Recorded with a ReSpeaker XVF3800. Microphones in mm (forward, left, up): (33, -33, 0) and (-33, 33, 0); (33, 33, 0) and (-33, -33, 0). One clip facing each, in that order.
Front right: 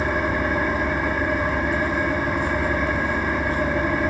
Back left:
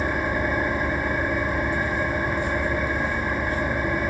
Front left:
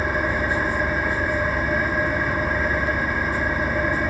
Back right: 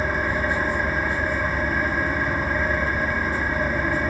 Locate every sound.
0.0 s an engine running: 45° right, 5 m